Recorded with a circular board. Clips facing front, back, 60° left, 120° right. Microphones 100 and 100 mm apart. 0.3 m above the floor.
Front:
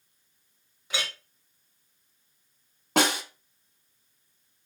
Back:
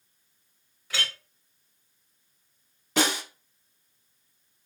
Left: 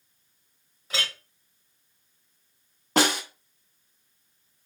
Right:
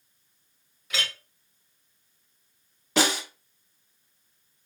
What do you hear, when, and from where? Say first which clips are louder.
0.9 s a clink: even, left 1 dB; 50° left, 0.6 m
3.0 s a snare drum: front 2 dB, left 2 dB; 20° left, 0.8 m